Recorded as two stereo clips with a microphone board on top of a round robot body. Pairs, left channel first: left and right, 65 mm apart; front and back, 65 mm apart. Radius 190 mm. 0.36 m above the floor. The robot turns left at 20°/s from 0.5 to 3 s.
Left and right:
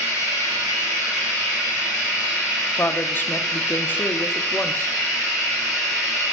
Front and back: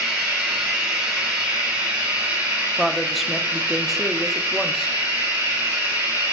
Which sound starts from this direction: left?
A woman speaking, at 2.8 s.